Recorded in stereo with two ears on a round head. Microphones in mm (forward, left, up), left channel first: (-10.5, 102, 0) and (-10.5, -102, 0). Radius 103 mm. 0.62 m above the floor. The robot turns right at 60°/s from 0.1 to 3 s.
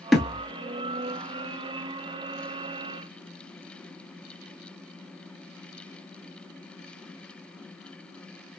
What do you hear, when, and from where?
0.1 s a thud: centre (ahead or behind), 0.6 m; by 0.5 s 10° left (ahead or behind), 0.6 m